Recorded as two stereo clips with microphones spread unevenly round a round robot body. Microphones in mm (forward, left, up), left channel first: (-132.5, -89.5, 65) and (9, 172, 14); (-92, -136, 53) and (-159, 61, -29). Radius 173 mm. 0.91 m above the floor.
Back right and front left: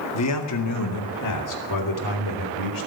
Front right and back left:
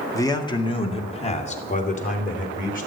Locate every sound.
0.1 s a man speaking: 150° right, 1.9 m; by 2.9 s 120° right, 3.5 m